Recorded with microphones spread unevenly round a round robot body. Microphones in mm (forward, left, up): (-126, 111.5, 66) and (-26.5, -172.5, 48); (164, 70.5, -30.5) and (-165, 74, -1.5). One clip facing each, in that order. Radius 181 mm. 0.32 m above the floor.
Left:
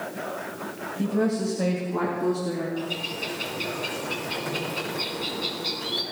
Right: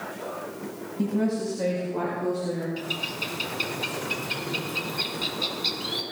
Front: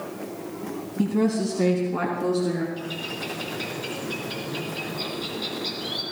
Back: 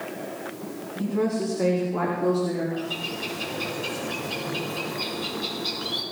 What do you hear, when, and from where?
1.0 s a woman speaking: 5° left, 2 m; by 2.7 s 30° left, 3.5 m
2.8 s a bird: 80° right, 3 m